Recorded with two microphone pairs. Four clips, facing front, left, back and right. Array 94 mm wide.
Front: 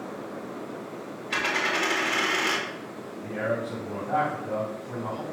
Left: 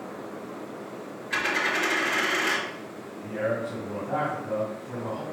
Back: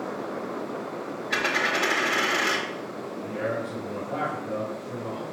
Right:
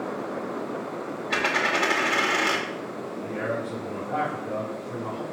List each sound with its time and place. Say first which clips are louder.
1.3 s a dropped coin: right 2 dB, back 1 dB; 115° right, 0.9 m
3.2 s a man speaking: left 2 dB, front 1 dB; 5° left, 2.5 m